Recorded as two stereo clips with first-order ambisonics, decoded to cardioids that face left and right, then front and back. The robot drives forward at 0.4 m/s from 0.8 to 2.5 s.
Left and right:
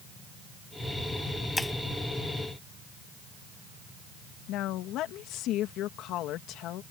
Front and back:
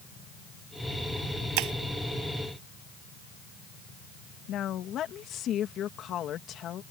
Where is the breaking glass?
175° left.